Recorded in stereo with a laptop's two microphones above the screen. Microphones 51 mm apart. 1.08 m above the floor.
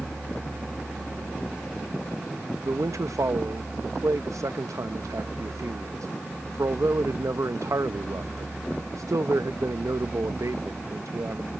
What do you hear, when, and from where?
2.6 s a man speaking: 85° right